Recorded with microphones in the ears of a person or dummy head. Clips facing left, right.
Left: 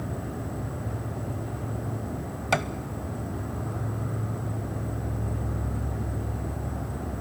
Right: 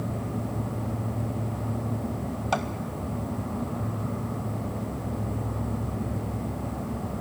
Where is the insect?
15° left (ahead or behind), 1.5 m.